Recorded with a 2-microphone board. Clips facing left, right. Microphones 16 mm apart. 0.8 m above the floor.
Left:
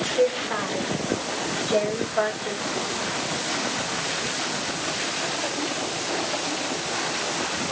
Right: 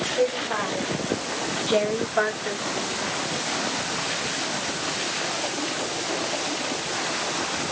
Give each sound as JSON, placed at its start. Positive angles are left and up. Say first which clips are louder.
{"t": 0.2, "sound": "a woman speaking", "louder": "left 2 dB", "side_deg": -20, "distance_m": 2.5}